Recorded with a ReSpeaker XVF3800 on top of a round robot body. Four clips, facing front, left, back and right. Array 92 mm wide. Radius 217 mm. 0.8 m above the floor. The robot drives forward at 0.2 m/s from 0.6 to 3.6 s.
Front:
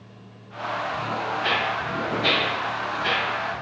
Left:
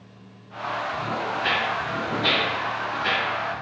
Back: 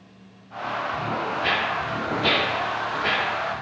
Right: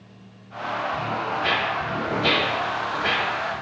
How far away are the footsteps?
About 1.4 m.